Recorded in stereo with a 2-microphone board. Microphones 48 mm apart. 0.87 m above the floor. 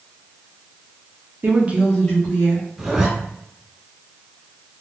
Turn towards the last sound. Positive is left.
turn(degrees=-10)  # may be behind; listen again after turning